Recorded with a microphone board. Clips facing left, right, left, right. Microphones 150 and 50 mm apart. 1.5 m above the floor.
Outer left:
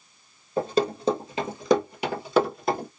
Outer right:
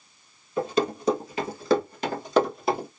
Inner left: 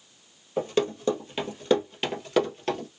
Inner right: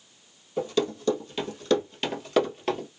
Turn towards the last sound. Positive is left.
turn(degrees=-10)  # may be behind; listen again after turning